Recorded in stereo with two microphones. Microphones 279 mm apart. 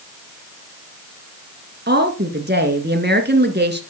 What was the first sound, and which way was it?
A woman speaking, 40° right (ahead or behind).